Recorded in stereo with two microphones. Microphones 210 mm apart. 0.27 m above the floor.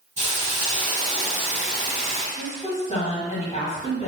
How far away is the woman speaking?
About 1.7 m.